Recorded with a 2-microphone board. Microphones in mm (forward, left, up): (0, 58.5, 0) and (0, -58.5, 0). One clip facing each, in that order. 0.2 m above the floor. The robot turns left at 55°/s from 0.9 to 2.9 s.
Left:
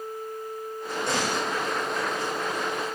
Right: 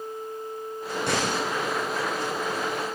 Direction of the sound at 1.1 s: 60° right (ahead or behind).